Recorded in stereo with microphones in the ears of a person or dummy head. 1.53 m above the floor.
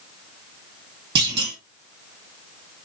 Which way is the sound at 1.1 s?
25° right (ahead or behind).